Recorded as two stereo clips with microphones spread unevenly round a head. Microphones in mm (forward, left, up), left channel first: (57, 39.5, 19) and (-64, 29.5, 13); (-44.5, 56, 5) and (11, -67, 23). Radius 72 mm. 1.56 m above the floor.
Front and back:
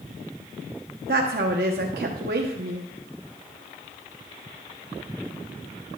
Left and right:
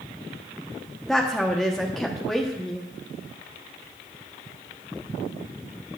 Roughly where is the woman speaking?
Behind right.